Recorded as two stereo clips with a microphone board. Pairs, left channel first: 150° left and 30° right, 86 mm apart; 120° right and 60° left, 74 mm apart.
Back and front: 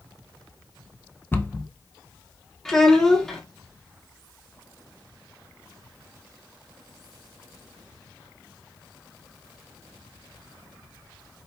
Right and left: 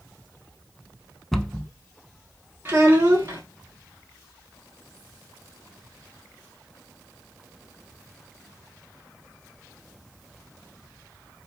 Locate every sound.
1.3 s a cupboard door: 160° left, 0.5 m
2.6 s a child speaking: 75° left, 0.7 m